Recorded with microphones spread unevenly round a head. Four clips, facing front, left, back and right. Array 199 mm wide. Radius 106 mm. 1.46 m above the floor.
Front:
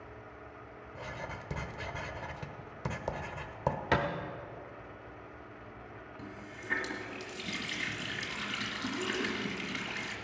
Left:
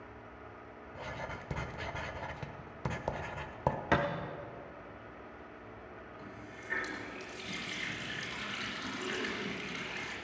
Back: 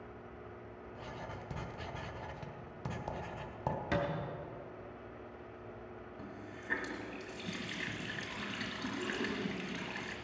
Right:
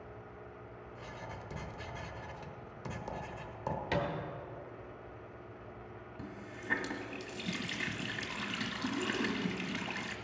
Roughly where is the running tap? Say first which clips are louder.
Right 2 dB, front 3 dB; right.